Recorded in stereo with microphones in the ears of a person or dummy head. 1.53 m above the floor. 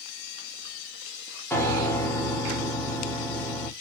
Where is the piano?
10° left (ahead or behind), 0.8 m.